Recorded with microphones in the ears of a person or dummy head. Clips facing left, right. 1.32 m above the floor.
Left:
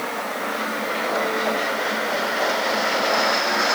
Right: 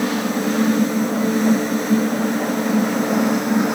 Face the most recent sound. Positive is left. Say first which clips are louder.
# right 8 dB
turn(degrees=-80)